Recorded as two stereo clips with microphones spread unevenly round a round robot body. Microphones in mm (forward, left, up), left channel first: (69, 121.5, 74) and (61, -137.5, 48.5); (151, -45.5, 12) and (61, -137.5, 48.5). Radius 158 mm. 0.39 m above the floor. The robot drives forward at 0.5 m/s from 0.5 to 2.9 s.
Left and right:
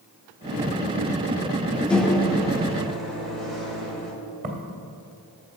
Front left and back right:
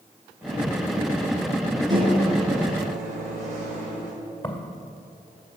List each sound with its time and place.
1.9 s a microwave: straight behind, 0.6 m
4.4 s footsteps: 35° right, 2 m